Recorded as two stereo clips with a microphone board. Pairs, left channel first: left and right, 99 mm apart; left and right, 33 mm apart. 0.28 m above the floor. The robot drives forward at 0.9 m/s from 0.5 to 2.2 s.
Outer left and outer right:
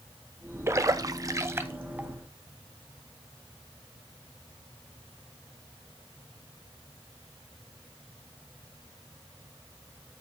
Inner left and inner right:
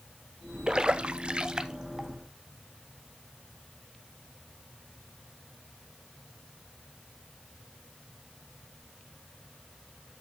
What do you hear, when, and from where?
0.7 s a splash: 25° right (ahead or behind), 0.6 m; by 2.1 s 15° right (ahead or behind), 1.0 m